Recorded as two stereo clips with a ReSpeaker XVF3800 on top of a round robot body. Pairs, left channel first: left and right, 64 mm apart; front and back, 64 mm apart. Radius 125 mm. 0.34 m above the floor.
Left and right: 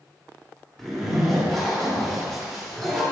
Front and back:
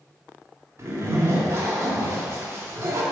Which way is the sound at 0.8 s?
175° left.